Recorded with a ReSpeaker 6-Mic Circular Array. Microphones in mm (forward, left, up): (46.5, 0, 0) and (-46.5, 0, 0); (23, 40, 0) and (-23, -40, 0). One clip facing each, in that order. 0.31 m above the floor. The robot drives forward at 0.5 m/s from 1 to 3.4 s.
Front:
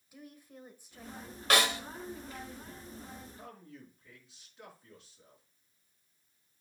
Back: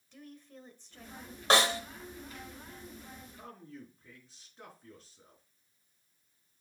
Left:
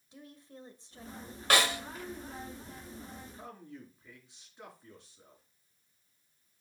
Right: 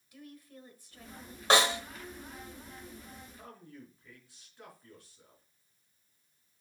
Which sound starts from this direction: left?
A woman speaking, at 0.1 s.